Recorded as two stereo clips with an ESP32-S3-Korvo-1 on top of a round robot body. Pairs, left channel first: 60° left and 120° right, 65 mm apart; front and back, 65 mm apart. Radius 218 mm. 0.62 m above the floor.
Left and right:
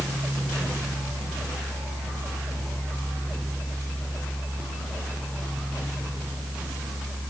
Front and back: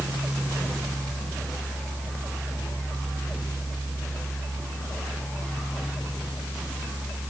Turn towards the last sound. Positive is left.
No sound to turn to.